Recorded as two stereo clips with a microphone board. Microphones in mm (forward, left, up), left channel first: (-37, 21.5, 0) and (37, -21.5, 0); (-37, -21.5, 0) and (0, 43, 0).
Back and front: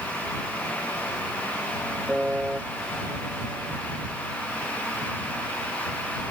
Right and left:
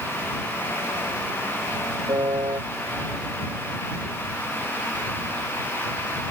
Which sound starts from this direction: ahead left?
A piano, at 2.1 s.